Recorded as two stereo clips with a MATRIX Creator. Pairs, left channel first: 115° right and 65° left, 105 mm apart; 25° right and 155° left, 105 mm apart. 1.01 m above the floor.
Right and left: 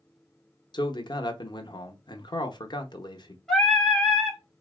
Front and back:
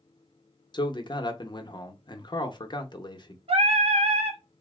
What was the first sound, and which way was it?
A man speaking, 65° right.